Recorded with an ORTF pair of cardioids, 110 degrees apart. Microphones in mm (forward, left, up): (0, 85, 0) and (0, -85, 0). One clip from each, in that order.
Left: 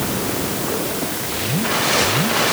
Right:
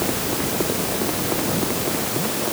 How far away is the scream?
No scream in this recording.